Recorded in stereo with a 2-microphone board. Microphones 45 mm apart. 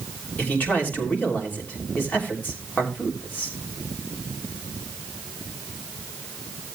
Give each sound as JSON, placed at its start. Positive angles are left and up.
{"t": 0.4, "sound": "a man speaking", "side_deg": 40, "distance_m": 3.0}